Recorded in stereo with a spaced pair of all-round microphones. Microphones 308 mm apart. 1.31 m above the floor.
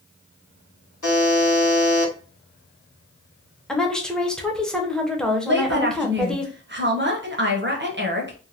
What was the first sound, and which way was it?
A buzzer, 65° left (ahead or behind).